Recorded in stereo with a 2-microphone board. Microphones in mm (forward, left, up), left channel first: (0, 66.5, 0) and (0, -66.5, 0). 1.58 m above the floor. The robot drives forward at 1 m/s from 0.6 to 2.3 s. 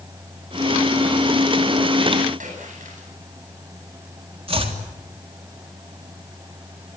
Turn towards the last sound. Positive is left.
turn(degrees=-45)  # may be behind; listen again after turning